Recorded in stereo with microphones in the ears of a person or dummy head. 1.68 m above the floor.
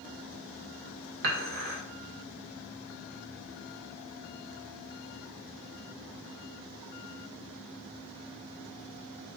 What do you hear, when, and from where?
1.2 s dishes clattering: 50° right (ahead or behind), 1.5 m